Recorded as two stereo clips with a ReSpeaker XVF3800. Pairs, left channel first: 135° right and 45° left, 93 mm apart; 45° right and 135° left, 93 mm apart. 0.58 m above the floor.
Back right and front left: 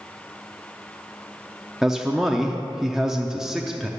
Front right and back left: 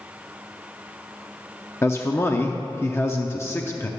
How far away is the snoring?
I don't hear snoring.